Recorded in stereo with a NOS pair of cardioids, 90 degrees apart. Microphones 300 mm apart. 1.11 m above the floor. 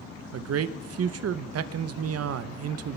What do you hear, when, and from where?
0.3 s a man speaking: 55° right, 0.9 m